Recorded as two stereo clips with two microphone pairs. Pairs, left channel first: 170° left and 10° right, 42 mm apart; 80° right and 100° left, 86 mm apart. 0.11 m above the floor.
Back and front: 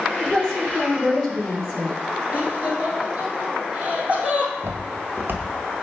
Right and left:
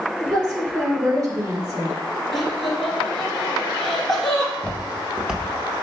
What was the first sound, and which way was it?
A woman speaking, 105° left.